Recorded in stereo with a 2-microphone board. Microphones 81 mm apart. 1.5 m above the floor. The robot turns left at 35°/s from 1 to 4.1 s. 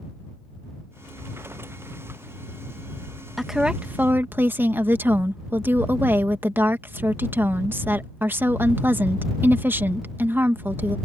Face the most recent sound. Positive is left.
turn(degrees=-25)  # may be behind; listen again after turning